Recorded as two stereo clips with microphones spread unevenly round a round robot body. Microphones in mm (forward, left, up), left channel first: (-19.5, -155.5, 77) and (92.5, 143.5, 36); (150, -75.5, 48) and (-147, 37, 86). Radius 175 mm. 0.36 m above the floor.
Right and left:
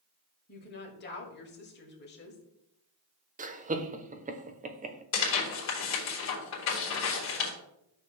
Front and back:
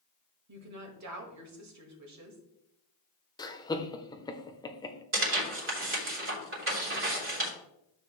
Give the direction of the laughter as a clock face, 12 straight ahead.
11 o'clock.